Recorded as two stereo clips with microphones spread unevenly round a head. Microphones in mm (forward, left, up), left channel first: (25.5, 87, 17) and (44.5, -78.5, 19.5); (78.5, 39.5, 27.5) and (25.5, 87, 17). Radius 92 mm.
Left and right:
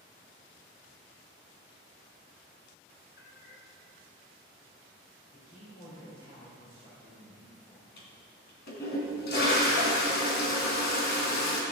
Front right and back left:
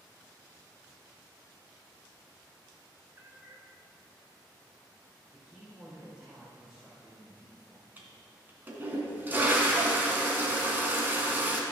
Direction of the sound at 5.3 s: 65° left.